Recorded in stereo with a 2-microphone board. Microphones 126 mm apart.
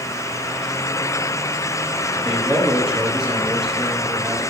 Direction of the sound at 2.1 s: 5° right (ahead or behind).